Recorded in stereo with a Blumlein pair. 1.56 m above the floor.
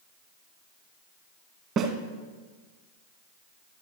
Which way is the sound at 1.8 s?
30° right.